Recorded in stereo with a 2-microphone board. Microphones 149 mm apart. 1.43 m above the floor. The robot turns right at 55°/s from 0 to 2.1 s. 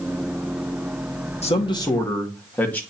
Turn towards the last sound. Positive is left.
turn(degrees=170)